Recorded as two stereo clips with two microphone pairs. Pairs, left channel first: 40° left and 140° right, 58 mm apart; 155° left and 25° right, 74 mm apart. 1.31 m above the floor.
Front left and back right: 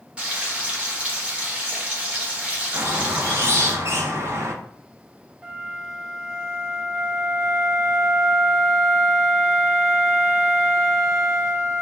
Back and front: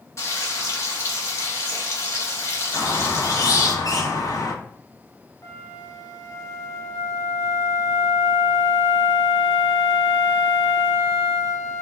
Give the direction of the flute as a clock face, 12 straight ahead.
6 o'clock.